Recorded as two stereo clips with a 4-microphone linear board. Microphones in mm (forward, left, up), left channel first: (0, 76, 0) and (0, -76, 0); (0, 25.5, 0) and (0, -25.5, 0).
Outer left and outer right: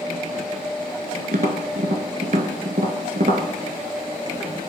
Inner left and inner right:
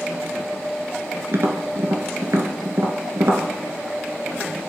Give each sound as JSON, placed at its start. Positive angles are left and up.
{"t": 1.3, "sound": "tapping", "side_deg": -65, "distance_m": 0.8}